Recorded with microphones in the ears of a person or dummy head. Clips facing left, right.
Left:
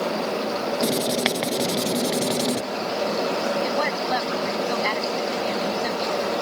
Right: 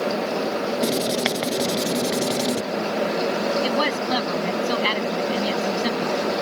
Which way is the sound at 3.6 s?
50° right (ahead or behind).